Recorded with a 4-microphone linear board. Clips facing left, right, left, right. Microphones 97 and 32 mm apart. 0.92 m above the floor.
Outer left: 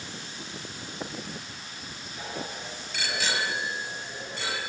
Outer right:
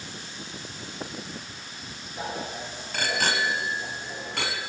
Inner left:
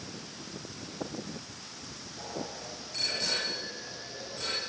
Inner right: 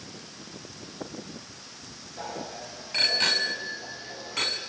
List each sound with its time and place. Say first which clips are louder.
2.2 s a bicycle bell: outer right 4 dB, inner right 3 dB; 35° right (ahead or behind), 4 m; by 4.6 s 70° right (ahead or behind), 6 m